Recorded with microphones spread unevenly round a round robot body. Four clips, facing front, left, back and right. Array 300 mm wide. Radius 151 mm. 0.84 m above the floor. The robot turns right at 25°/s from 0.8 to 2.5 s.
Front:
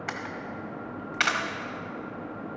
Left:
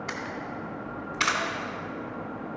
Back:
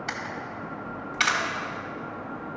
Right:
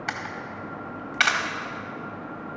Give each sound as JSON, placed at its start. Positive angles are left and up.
{"t": 0.1, "sound": "a camera shutter", "azimuth_deg": -90, "distance_m": 1.6}